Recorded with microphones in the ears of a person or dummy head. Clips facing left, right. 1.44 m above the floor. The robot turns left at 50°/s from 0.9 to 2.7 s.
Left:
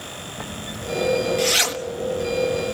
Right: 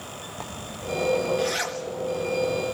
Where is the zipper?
15° left (ahead or behind), 1.3 m; by 2.8 s 65° left (ahead or behind), 1.3 m.